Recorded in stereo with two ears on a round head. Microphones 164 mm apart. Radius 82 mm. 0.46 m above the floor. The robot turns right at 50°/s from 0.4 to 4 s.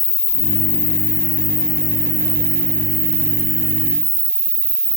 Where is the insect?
120° left, 1.8 m; by 5.0 s 60° right, 1.8 m.